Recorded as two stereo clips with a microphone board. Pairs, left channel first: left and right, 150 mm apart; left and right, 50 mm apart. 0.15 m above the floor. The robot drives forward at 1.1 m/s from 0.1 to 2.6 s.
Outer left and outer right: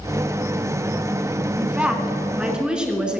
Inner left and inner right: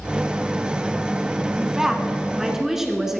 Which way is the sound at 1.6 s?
10° right (ahead or behind).